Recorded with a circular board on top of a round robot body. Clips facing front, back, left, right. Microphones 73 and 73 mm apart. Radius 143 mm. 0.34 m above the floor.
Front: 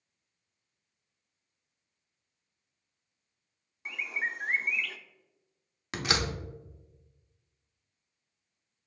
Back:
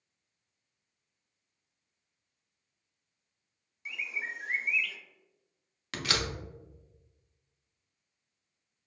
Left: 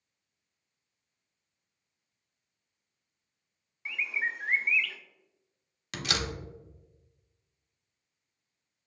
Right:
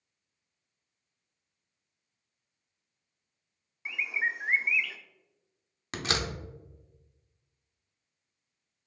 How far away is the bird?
About 0.6 m.